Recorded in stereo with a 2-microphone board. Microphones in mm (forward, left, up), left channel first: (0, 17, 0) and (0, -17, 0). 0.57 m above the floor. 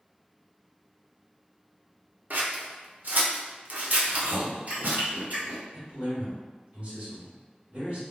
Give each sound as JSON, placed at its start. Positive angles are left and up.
{"t": 2.3, "sound": "scissors", "side_deg": -60, "distance_m": 0.7}
{"t": 4.0, "sound": "chewing", "side_deg": -55, "distance_m": 1.5}
{"t": 5.7, "sound": "a man speaking", "side_deg": -40, "distance_m": 1.9}